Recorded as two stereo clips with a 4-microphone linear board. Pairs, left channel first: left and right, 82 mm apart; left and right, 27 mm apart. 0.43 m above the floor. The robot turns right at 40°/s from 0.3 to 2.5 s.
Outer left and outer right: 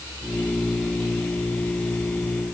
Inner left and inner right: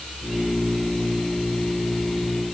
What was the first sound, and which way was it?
Only background noise.